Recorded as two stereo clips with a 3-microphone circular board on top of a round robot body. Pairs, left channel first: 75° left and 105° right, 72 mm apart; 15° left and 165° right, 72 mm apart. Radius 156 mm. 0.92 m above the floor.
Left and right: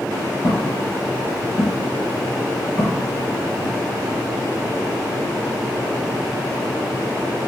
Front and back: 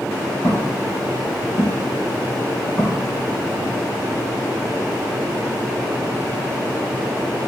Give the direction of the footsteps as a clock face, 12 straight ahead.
10 o'clock.